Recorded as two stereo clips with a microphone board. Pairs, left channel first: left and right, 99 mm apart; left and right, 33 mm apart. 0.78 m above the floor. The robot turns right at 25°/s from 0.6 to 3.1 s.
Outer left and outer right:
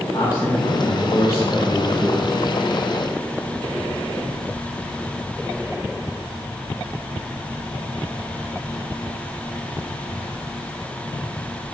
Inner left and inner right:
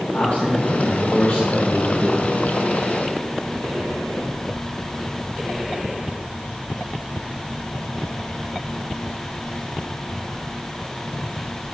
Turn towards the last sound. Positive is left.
turn(degrees=-170)